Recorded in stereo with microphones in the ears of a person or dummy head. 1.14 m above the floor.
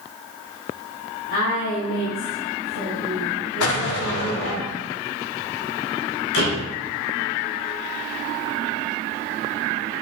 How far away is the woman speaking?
About 5 m.